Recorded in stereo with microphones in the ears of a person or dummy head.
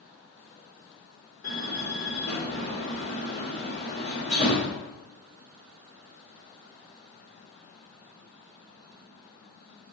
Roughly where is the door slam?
Left.